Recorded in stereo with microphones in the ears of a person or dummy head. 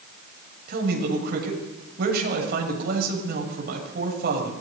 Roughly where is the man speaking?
Right.